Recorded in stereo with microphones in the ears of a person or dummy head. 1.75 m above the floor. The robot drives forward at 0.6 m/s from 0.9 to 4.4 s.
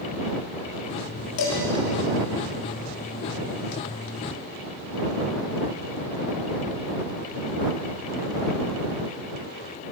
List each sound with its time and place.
1.4 s dishes clattering: 75° left (ahead or behind), 3 m